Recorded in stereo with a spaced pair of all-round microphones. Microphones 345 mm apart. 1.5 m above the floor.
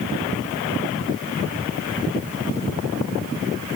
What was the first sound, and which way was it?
Only background noise.